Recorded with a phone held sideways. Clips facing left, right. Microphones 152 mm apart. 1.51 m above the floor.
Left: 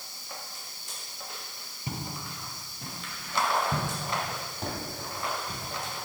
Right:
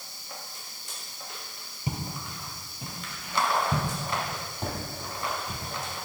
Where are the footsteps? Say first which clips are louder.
Right 2 dB; 15° right (ahead or behind), 1.6 m; by 5.6 s centre (ahead or behind), 4 m.